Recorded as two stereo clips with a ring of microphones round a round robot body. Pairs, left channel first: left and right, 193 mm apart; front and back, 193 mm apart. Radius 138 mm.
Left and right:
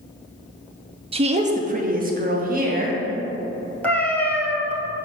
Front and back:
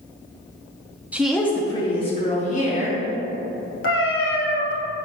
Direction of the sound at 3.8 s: 10° left.